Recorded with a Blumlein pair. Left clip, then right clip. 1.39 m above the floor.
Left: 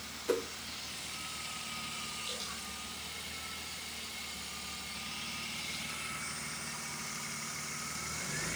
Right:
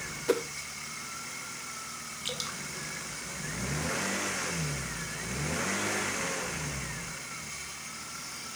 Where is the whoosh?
20° right, 1.1 m.